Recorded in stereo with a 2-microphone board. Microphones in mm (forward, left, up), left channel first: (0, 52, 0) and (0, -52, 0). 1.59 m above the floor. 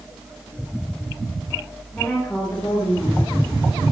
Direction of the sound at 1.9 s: 15° left (ahead or behind).